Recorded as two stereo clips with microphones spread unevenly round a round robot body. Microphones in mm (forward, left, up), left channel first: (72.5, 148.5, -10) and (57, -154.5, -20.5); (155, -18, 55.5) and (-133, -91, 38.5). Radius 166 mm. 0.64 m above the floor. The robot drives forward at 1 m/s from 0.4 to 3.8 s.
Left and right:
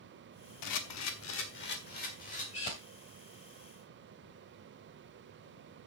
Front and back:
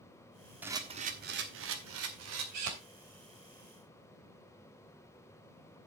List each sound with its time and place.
0.6 s a camera shutter: 110° left, 1.1 m; by 2.7 s 160° left, 2.5 m